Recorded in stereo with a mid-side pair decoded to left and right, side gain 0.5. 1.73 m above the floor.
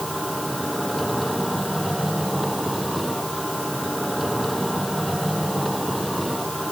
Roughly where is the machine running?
Ahead.